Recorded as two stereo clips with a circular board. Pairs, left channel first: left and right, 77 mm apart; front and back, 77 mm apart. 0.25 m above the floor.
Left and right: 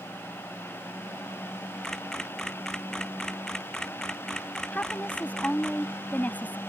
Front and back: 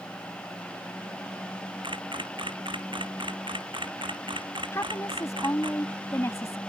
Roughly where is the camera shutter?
Behind.